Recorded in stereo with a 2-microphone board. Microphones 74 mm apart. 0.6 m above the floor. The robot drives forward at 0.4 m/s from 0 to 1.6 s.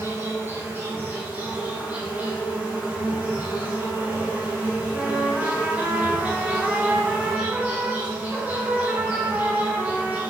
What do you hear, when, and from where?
0.0 s an insect: 35° right (ahead or behind), 0.8 m; by 10.3 s 25° right (ahead or behind), 1.3 m
4.9 s a trumpet: 15° right (ahead or behind), 0.6 m